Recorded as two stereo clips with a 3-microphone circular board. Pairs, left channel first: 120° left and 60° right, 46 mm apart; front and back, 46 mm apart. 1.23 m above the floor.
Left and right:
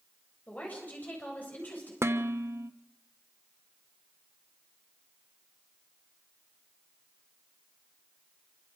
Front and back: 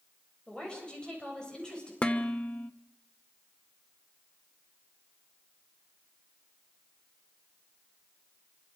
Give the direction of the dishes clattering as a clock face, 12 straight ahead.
2 o'clock.